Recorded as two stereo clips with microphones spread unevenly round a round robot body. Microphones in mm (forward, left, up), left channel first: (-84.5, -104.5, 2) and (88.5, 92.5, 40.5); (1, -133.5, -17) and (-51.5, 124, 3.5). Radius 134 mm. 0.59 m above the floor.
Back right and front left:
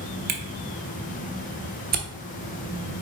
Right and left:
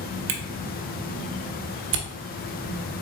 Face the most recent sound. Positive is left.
turn(degrees=100)